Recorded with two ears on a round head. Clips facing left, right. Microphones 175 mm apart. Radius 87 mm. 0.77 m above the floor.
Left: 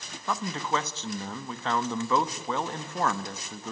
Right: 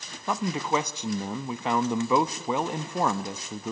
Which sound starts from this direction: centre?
A man speaking, at 0.3 s.